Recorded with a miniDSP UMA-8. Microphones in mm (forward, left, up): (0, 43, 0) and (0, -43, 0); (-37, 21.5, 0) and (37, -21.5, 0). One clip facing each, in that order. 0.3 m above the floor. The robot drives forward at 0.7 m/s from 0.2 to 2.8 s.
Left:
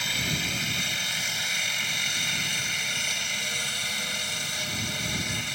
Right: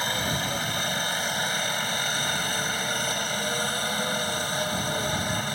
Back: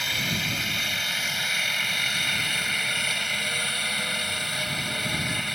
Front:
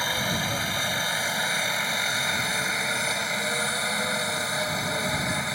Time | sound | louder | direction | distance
0.0 | a helicopter | right 4 dB, front 3 dB | 65° right | ?